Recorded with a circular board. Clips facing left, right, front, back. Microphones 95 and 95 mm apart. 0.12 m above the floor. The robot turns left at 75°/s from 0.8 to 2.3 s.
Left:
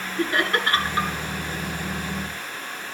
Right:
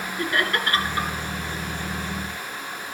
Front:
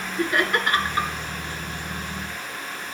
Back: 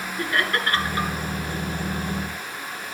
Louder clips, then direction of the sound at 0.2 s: Left 2 dB, front 2 dB; 60° left.